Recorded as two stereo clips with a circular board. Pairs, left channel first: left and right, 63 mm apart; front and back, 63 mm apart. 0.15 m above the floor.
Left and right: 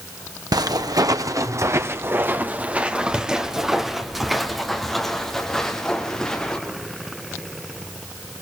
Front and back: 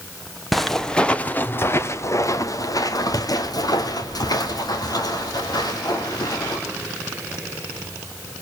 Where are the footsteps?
90° right, 1.4 m; by 6.6 s 10° left, 4.5 m.